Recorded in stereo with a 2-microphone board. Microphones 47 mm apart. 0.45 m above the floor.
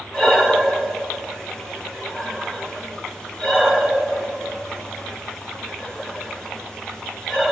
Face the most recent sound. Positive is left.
turn(degrees=15)  # may be behind; listen again after turning